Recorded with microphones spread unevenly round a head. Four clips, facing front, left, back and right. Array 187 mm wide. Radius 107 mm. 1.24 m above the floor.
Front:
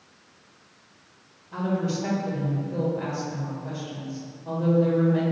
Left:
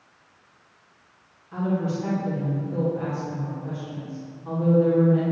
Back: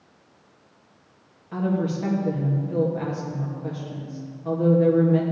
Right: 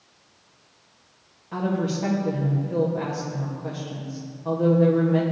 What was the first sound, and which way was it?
A woman speaking, 140° right.